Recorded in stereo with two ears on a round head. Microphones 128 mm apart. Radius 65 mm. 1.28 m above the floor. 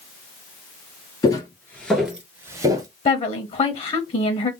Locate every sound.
1.2 s footsteps: 25° left (ahead or behind), 1.4 m; by 2.9 s 30° right (ahead or behind), 1.4 m
3.0 s a woman speaking: 45° left (ahead or behind), 0.9 m